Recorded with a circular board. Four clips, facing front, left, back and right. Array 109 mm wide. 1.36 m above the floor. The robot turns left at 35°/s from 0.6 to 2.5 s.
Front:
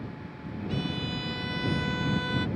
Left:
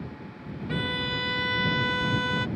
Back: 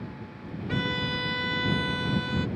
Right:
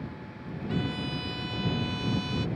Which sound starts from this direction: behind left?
A violin, at 0.7 s.